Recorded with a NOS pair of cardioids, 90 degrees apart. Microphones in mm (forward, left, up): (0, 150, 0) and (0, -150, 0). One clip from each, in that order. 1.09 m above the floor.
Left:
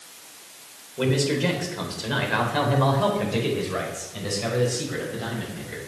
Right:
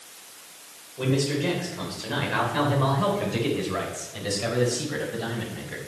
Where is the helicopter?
No helicopter in this recording.